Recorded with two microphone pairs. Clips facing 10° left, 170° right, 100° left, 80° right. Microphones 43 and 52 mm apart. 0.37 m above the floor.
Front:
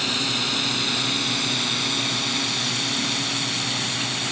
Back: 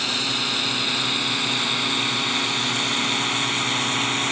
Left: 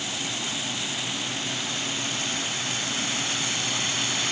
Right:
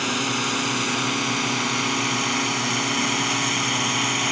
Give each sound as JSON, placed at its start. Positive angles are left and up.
{"t": 0.0, "sound": "a drone", "azimuth_deg": -85}